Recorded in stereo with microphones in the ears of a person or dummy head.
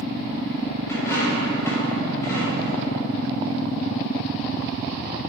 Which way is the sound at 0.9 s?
15° left (ahead or behind).